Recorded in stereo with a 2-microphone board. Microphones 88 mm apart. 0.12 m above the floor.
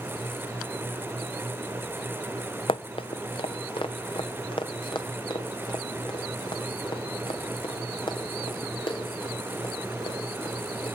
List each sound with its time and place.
2.7 s running footsteps: 80° left, 0.6 m; by 10.9 s 65° left (ahead or behind), 10 m